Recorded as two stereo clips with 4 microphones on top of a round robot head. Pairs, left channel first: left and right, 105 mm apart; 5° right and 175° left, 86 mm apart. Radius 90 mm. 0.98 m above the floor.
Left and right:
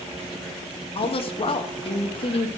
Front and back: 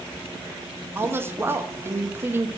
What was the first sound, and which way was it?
A woman speaking, 115° left.